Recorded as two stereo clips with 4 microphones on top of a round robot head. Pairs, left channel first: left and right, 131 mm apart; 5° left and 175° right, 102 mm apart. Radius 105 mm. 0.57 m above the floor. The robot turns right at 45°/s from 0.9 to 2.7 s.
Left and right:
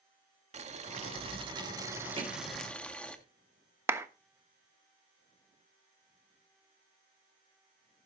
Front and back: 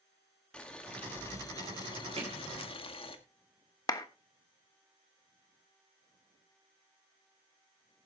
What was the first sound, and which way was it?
Boiling, 70° right.